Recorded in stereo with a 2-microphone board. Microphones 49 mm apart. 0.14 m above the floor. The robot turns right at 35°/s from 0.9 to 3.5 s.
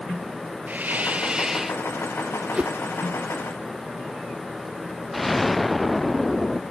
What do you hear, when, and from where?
0.7 s a hiss: 35° right; by 1.8 s 5° right
2.5 s a whoosh: 25° right (ahead or behind); by 2.7 s 15° right (ahead or behind)
5.1 s an explosion: centre (ahead or behind)